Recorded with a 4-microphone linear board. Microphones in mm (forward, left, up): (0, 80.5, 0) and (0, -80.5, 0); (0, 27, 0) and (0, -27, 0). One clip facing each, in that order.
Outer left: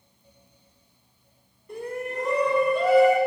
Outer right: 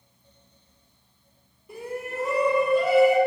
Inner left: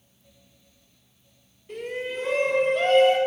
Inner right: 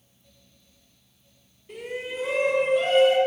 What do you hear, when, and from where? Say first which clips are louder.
1.7 s a shout: outer left 2 dB, inner left 2 dB; 5° right (ahead or behind), 5 m; by 3.2 s 10° right (ahead or behind), 7.5 m